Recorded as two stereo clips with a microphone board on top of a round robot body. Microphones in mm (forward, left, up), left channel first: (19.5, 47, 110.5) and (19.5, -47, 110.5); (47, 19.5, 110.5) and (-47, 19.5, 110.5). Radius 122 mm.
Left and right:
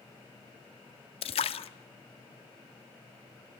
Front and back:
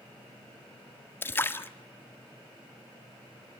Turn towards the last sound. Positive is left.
turn(degrees=70)